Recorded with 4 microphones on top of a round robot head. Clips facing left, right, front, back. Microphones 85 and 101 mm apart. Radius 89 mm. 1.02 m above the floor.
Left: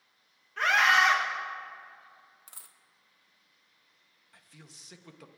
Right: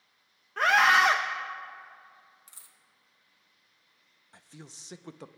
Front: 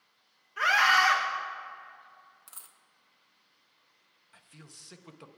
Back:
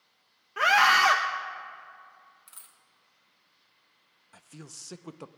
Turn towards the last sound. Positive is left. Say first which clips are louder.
# right 6 dB, back 7 dB
turn(degrees=-140)